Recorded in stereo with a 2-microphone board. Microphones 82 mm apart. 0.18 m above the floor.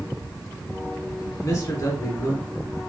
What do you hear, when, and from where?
1.4 s a man speaking: 35° left (ahead or behind), 2.5 m